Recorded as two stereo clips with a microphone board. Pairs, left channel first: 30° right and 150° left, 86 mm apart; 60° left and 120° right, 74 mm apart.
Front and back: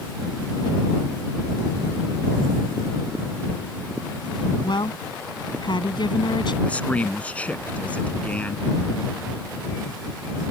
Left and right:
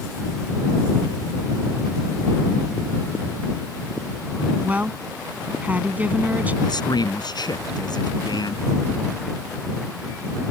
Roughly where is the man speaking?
Ahead left.